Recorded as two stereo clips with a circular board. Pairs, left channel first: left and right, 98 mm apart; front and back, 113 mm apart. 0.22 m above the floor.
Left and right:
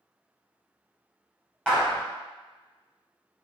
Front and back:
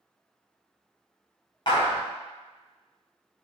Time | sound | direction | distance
1.7 | a clap | 10° left | 1.5 m